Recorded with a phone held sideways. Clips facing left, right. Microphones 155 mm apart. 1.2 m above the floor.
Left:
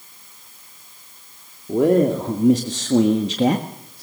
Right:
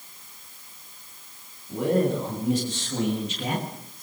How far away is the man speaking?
About 2.5 m.